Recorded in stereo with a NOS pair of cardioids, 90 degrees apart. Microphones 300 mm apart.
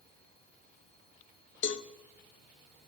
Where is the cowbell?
40° left, 0.8 m.